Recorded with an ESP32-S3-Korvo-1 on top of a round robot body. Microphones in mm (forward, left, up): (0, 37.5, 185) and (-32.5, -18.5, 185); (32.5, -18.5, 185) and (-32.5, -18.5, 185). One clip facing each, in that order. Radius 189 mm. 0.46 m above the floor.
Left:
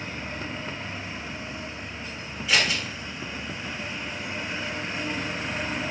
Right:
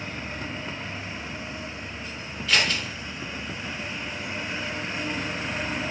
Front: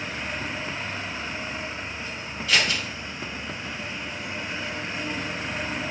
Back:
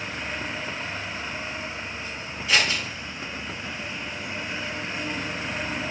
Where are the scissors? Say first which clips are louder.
Even, back 1 dB; 125° left, 1.1 m.